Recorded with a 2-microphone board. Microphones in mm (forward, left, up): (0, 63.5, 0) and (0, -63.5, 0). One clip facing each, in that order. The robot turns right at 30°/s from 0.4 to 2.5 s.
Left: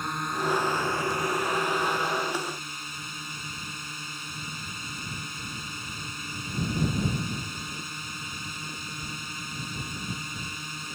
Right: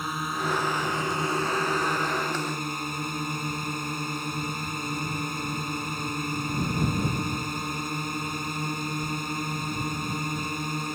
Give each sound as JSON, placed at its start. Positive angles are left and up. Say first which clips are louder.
{"t": 0.0, "sound": "a drone", "louder": "even", "azimuth_deg": -175}